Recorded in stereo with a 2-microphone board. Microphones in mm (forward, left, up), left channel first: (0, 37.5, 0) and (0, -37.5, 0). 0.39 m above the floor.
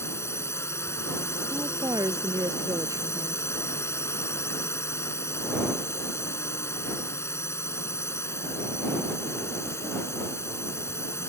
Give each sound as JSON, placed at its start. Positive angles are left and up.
{"t": 0.0, "sound": "a drone", "side_deg": 35}
{"t": 1.5, "sound": "a woman speaking", "side_deg": -50}